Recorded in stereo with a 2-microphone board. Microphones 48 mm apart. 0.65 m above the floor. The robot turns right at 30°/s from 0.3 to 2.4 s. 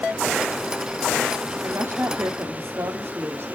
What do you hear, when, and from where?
1.6 s a woman speaking: 55° right (ahead or behind), 1.7 m; by 3.5 s 60° right (ahead or behind), 1.7 m